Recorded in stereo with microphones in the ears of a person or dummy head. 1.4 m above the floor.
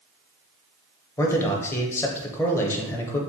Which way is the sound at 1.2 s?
15° left (ahead or behind).